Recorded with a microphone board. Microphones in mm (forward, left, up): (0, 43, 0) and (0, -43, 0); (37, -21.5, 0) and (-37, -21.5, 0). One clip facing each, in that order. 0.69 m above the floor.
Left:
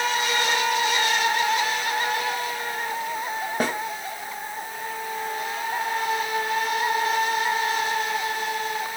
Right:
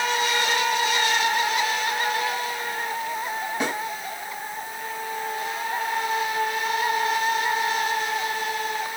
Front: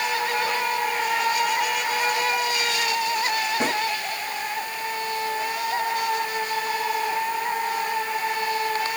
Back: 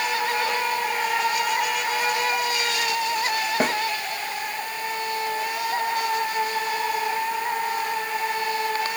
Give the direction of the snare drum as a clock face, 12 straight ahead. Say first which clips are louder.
Left 2 dB, back 4 dB; 8 o'clock.